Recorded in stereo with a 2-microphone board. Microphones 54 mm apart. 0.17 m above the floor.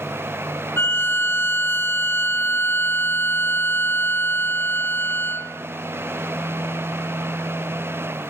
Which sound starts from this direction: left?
A violin, at 0.8 s.